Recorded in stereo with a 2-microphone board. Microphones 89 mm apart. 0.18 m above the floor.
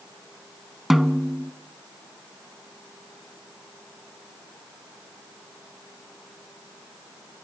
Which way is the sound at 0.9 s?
5° right (ahead or behind).